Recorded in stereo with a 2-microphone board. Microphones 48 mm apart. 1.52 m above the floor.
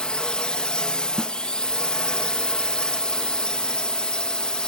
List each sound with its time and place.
0.0 s a drone: 20° left (ahead or behind)
1.2 s a snare drum: 10° left (ahead or behind)